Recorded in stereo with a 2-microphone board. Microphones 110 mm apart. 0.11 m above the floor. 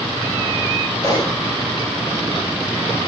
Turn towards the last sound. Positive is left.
turn(degrees=35)  # may be behind; listen again after turning